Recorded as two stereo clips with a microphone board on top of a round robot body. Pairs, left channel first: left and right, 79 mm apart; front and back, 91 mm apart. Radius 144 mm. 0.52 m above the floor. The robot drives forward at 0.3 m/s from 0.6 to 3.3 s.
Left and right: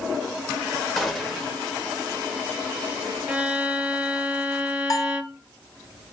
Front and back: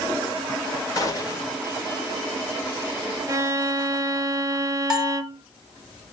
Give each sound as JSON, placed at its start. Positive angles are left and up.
{"t": 1.0, "sound": "a gunshot", "azimuth_deg": 10, "distance_m": 1.4}
{"t": 3.3, "sound": "a violin", "azimuth_deg": -155, "distance_m": 0.6}
{"t": 4.9, "sound": "a bell", "azimuth_deg": 100, "distance_m": 1.0}